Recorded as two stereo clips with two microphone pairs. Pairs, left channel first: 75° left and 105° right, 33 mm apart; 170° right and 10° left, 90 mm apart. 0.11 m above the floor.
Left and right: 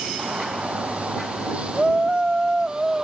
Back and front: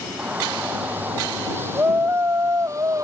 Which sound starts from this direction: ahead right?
A shout, at 0.2 s.